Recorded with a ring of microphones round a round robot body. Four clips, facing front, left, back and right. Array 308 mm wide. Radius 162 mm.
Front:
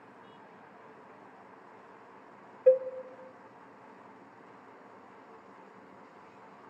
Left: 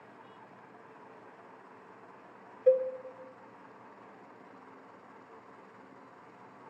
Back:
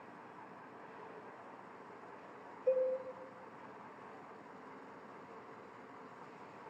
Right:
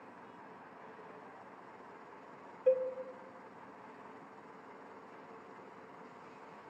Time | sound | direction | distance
2.7 | a cowbell | 15° left | 0.6 m